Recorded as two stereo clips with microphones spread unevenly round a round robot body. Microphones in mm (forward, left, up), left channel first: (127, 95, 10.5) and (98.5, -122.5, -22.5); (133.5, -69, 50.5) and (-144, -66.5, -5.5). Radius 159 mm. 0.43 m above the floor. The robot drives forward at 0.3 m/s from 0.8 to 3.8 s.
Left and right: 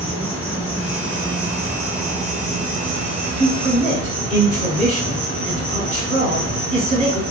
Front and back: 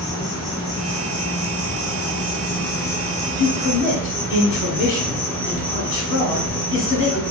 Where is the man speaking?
70° right, 0.9 m; by 7.2 s 85° right, 0.9 m.